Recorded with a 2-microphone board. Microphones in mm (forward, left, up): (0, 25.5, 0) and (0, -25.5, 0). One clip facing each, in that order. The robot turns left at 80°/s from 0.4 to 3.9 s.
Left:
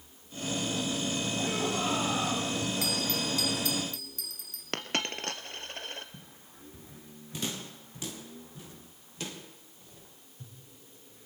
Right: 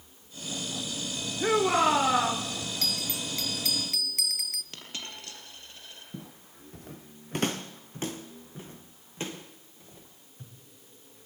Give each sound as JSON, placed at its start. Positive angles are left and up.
{"t": 1.4, "sound": "a shout", "azimuth_deg": -65, "distance_m": 1.8}
{"t": 2.8, "sound": "a bell", "azimuth_deg": 10, "distance_m": 1.0}
{"t": 4.7, "sound": "a dropped coin", "side_deg": 55, "distance_m": 2.0}
{"t": 6.1, "sound": "footsteps", "side_deg": -85, "distance_m": 1.5}